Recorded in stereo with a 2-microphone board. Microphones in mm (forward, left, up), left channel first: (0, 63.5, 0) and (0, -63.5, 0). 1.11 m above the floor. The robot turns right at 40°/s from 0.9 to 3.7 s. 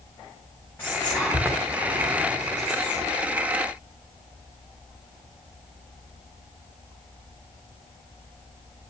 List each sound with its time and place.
0.8 s whispering: 15° left (ahead or behind), 4 m; by 3.1 s 70° right (ahead or behind), 4 m